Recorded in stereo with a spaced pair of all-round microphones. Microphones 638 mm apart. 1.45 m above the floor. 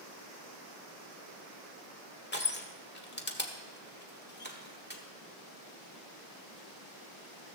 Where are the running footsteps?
I don't hear running footsteps.